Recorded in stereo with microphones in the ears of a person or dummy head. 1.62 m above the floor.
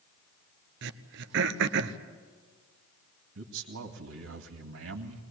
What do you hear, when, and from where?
0.8 s throat clearing: 65° right (ahead or behind), 1.0 m
3.4 s a man speaking: 75° right (ahead or behind), 2 m